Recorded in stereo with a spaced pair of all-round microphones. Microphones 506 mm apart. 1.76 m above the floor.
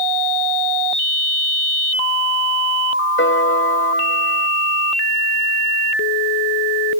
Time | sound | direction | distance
3.2 | a piano | 25° left (ahead or behind) | ?